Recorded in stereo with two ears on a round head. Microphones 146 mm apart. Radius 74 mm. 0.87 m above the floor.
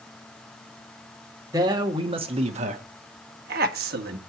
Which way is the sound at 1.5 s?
25° right (ahead or behind).